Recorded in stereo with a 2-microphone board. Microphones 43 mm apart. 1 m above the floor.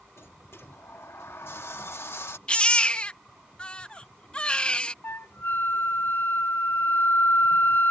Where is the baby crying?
25° left (ahead or behind).